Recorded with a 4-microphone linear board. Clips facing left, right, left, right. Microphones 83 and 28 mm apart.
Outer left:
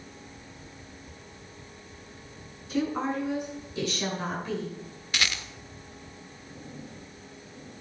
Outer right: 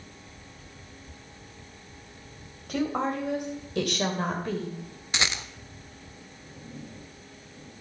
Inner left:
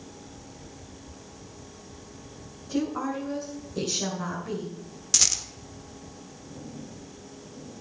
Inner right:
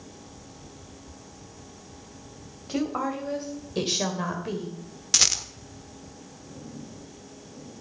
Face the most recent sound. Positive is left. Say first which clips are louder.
# outer right 1 dB, inner right 3 dB
turn(degrees=-25)  # may be behind; listen again after turning